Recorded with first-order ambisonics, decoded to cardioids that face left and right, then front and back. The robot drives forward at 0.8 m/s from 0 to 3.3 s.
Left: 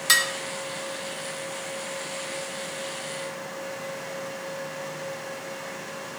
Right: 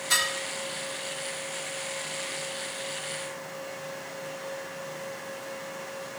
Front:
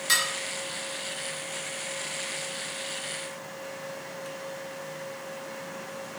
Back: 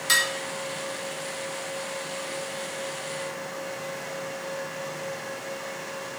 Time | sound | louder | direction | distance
0.1 | dishes clattering | left 5 dB, back 3 dB | 100° left | 1.6 m